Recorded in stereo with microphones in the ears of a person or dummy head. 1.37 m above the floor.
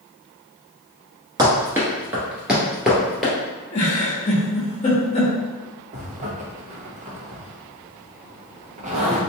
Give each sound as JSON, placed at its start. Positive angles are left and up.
{"t": 1.4, "sound": "running footsteps", "side_deg": -20, "distance_m": 1.4}
{"t": 3.7, "sound": "a giggle", "side_deg": 30, "distance_m": 1.1}
{"t": 5.9, "sound": "a zipper", "side_deg": -35, "distance_m": 0.8}